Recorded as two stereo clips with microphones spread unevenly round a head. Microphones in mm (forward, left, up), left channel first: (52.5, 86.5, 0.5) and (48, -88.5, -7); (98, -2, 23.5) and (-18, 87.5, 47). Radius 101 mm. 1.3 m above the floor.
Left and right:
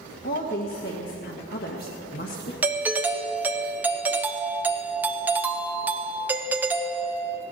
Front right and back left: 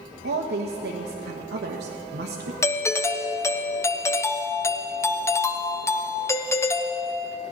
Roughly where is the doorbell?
Ahead right.